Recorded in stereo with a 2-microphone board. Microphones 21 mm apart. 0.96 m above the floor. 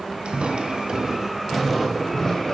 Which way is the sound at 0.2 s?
50° right (ahead or behind).